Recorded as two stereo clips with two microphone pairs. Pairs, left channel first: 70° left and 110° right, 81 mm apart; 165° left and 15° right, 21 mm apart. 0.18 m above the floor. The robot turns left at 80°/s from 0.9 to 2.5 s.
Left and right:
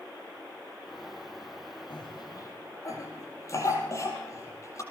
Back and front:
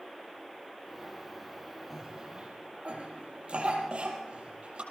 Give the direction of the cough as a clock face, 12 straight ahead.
10 o'clock.